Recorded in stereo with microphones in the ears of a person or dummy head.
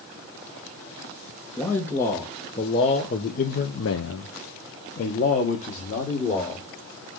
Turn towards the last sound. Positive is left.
turn(degrees=35)  # may be behind; listen again after turning